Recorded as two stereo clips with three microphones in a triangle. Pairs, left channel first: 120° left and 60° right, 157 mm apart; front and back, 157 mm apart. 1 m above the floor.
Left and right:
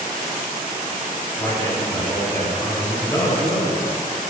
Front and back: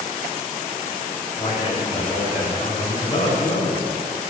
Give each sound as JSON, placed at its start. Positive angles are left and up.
{"t": 1.4, "sound": "a man speaking", "azimuth_deg": 50, "distance_m": 5.0}